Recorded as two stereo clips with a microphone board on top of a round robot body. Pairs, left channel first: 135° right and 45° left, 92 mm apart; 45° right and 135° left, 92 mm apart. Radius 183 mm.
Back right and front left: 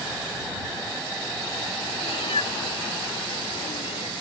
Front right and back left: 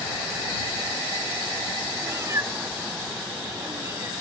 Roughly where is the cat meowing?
Behind.